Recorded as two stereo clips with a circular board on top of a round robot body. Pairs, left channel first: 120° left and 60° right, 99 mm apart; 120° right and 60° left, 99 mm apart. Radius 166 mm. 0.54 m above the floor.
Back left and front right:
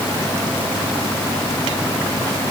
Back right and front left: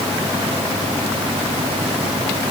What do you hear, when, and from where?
Only background noise.